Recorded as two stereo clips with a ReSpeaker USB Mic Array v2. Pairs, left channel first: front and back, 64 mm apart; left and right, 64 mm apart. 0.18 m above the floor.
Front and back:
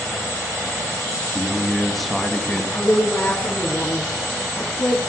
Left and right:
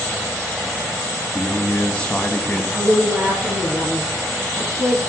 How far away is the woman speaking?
About 3 m.